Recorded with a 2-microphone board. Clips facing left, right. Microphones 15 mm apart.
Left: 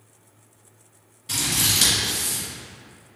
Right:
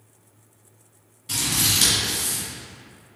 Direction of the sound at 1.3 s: 15° left (ahead or behind).